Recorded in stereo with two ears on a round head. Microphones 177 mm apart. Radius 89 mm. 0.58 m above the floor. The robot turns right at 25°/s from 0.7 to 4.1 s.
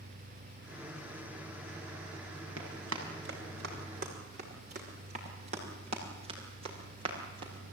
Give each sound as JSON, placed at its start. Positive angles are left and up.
{"t": 2.6, "sound": "running footsteps", "side_deg": -80, "distance_m": 8.5}